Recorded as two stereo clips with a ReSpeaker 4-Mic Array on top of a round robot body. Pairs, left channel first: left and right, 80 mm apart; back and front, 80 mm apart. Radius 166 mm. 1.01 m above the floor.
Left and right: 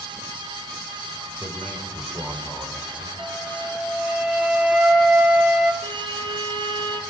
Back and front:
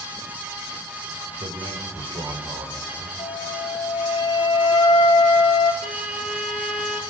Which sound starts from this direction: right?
A violin, at 5.8 s.